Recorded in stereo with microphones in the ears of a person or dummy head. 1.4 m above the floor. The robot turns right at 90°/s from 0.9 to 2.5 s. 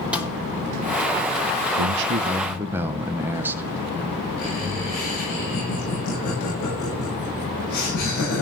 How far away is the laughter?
About 10 m.